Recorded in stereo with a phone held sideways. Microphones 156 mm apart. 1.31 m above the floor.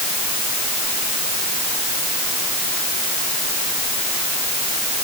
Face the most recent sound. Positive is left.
No sound to turn to.